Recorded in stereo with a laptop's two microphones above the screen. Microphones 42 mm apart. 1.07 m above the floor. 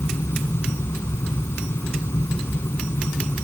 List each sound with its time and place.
0.0 s a fan: 85° left